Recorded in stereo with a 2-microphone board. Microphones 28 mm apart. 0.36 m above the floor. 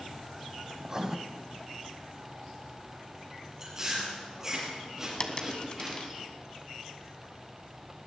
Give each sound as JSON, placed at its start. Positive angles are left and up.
{"t": 0.8, "sound": "writing", "side_deg": -20, "distance_m": 0.8}
{"t": 3.6, "sound": "chewing", "side_deg": -15, "distance_m": 6.0}
{"t": 5.2, "sound": "a dropped coin", "side_deg": 35, "distance_m": 1.4}